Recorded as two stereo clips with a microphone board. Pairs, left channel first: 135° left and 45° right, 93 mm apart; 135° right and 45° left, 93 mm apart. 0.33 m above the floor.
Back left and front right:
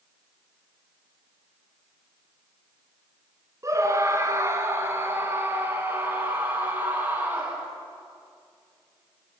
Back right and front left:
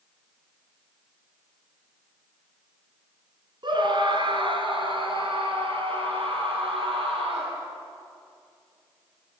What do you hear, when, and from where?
3.6 s a scream: 10° left, 3.5 m; by 7.6 s 25° left, 8.5 m